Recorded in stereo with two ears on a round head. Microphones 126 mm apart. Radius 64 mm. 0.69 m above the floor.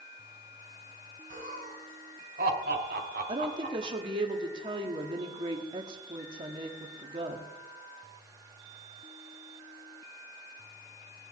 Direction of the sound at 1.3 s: 65° right (ahead or behind).